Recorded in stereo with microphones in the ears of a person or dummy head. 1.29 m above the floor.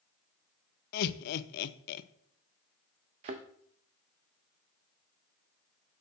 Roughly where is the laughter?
Left.